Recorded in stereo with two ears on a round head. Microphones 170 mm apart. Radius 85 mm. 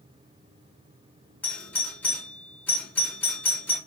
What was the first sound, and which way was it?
A doorbell, 10° left (ahead or behind).